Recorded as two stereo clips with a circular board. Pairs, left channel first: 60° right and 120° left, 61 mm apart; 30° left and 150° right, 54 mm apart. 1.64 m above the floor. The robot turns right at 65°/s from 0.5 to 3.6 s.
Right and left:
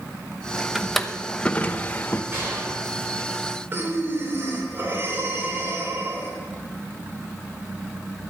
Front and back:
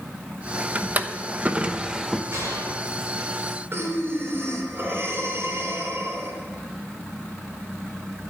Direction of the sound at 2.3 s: 175° left.